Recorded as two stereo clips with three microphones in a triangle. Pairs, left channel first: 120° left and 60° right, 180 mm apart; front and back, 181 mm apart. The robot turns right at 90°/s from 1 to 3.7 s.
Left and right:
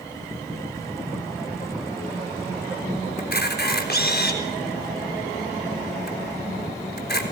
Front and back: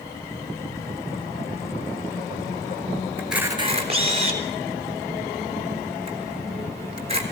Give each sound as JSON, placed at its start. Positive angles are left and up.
{"t": 3.2, "sound": "a camera shutter", "azimuth_deg": 80, "distance_m": 3.5}